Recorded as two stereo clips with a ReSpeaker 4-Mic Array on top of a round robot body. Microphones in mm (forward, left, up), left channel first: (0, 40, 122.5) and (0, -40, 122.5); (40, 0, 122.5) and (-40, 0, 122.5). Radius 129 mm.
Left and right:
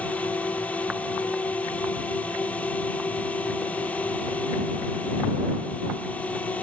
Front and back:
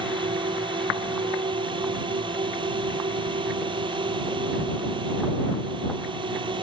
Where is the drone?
165° left.